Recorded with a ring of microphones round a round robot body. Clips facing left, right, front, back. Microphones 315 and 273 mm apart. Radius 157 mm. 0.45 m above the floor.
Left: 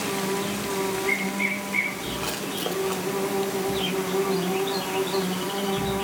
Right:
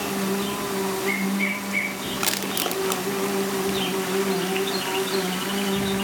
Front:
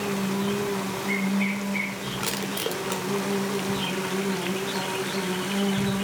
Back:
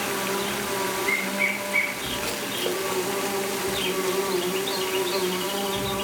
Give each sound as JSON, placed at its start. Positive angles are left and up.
{"t": 0.0, "sound": "an insect", "azimuth_deg": -150, "distance_m": 4.5}
{"t": 2.2, "sound": "crushing", "azimuth_deg": -60, "distance_m": 0.9}